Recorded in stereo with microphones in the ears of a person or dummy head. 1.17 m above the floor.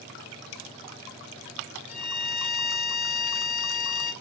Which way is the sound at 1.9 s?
45° left (ahead or behind).